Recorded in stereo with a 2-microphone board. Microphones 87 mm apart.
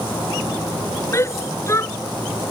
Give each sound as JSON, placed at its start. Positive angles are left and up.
{"t": 1.1, "sound": "a shout", "side_deg": 30}